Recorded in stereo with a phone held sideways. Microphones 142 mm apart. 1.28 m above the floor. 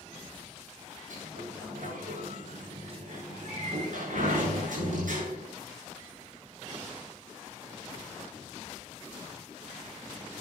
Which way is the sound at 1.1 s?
70° right (ahead or behind).